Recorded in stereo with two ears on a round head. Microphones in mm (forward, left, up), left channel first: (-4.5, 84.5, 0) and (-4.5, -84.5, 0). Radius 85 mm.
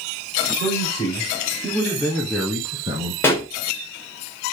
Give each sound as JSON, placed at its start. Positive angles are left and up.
{"t": 0.6, "sound": "a man speaking", "side_deg": 35, "distance_m": 3.5}
{"t": 3.2, "sound": "a pop", "side_deg": 10, "distance_m": 2.5}